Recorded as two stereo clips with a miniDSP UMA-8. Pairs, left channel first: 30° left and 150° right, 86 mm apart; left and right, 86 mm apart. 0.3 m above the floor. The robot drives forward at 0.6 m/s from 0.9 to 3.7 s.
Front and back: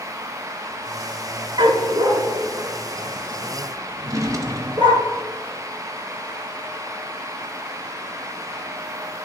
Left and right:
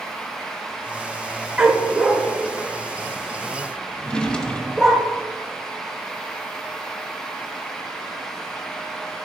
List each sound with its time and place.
1.6 s a dog barking: 175° right, 0.9 m; by 5.0 s straight behind, 2 m
4.0 s a drawer: 165° left, 0.9 m